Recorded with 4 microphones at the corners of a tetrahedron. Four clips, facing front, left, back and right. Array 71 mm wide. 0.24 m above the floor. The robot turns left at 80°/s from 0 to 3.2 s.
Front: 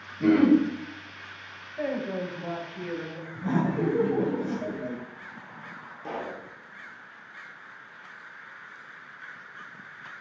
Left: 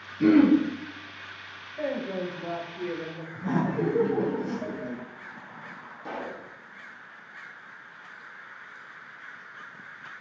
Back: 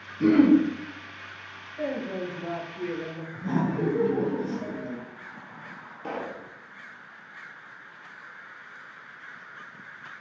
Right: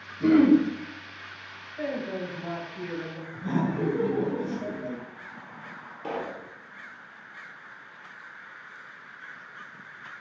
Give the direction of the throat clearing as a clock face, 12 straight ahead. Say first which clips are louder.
Even, back 1 dB; 8 o'clock.